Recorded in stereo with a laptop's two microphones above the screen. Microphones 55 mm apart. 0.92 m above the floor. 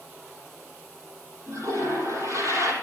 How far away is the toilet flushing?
About 5.5 m.